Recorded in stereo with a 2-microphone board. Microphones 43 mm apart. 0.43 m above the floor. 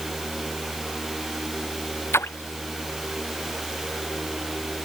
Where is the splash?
85° left.